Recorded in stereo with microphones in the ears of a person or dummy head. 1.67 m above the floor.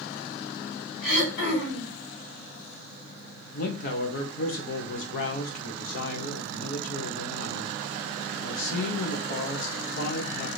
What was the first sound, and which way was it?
Throat clearing, 60° left (ahead or behind).